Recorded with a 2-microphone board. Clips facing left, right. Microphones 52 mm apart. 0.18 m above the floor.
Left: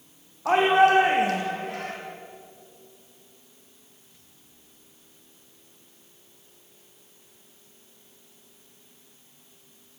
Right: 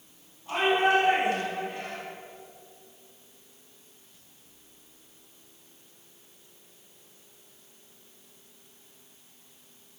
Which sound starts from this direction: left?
A shout, at 0.5 s.